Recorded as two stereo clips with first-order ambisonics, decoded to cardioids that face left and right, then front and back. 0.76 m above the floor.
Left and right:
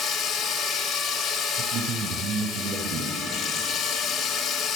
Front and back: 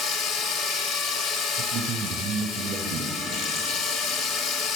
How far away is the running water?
About 2.5 m.